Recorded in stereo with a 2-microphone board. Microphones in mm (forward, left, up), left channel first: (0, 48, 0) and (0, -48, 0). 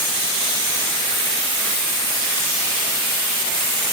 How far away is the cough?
No cough in this recording.